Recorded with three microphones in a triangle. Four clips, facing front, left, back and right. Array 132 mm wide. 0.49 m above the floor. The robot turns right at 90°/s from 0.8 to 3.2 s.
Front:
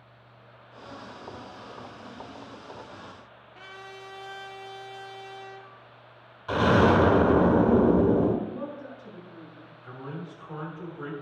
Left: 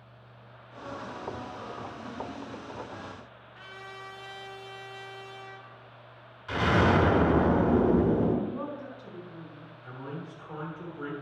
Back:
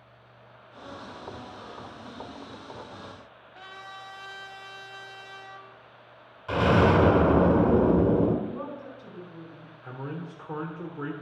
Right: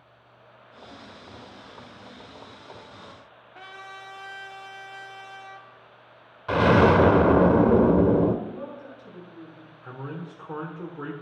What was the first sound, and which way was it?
A trumpet, 105° right.